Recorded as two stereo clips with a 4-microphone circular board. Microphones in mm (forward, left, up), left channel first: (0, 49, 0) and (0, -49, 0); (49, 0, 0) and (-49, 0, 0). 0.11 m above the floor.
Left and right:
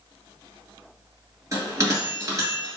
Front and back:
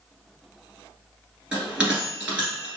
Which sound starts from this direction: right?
A bell, at 1.5 s.